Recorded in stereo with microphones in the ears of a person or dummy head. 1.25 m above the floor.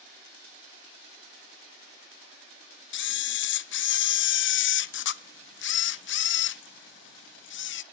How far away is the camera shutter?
About 0.5 m.